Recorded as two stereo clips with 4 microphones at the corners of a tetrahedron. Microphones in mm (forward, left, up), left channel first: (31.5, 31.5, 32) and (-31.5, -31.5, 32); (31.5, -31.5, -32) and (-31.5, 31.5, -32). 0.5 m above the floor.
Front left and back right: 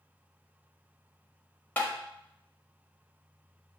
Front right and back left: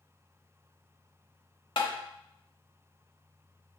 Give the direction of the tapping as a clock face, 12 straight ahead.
1 o'clock.